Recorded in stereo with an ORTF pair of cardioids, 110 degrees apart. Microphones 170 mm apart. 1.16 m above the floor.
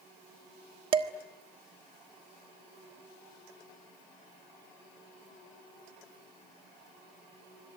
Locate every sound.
0.9 s dishes clattering: 30° right, 1.4 m